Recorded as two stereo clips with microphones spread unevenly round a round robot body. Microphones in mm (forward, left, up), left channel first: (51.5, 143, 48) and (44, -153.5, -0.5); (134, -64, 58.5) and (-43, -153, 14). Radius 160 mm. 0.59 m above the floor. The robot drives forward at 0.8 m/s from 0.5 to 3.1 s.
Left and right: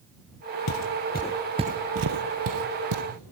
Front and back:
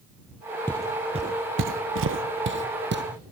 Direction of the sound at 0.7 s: 100° left.